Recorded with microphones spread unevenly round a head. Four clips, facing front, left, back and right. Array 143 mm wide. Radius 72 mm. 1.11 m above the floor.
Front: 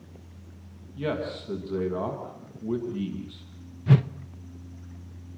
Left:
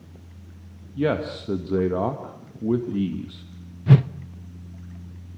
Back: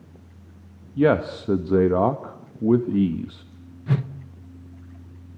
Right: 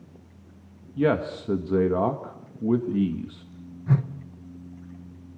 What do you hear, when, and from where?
1.0 s a man speaking: 175° right, 1.6 m
3.9 s a whoosh: 70° left, 0.8 m